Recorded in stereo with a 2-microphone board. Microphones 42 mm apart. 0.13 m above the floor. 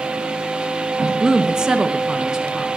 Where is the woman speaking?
15° right (ahead or behind), 1.1 m.